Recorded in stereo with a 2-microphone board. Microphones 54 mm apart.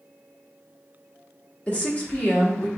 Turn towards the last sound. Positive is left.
turn(degrees=30)  # may be behind; listen again after turning